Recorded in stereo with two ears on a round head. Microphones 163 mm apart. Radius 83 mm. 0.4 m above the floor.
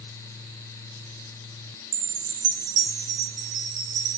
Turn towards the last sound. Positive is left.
turn(degrees=-65)  # may be behind; listen again after turning